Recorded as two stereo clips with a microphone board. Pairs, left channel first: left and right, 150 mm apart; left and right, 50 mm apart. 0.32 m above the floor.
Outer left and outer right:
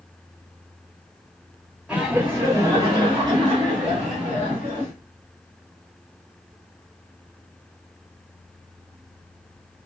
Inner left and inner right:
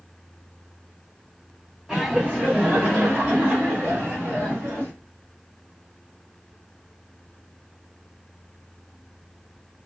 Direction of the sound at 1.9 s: 10° right (ahead or behind).